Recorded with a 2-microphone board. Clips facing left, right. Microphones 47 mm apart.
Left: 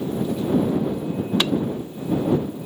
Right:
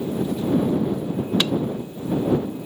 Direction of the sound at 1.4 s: 15° left (ahead or behind).